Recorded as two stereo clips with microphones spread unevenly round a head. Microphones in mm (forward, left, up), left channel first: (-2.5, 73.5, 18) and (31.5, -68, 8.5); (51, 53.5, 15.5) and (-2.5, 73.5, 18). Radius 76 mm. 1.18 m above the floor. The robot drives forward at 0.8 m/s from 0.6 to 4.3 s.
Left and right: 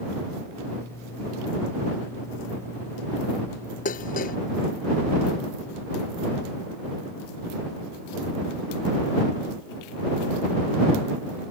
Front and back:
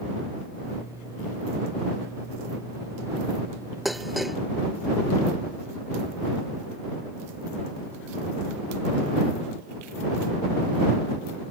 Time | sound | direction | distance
3.9 | dishes clattering | 70° left | ?